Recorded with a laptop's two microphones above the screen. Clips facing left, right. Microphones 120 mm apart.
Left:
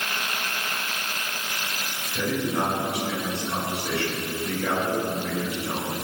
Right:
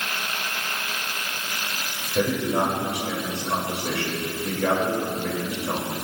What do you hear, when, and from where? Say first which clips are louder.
2.1 s a man speaking: right 3 dB; 75° right (ahead or behind), 4.5 m